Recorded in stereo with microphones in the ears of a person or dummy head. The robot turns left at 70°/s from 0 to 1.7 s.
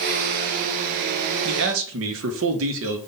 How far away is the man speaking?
About 0.9 m.